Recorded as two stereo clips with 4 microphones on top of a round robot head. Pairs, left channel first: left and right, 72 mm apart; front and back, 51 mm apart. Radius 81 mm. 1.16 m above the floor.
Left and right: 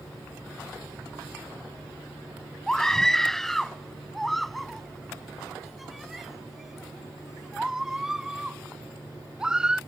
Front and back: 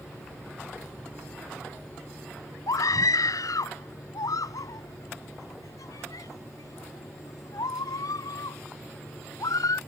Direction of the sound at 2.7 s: 5° left.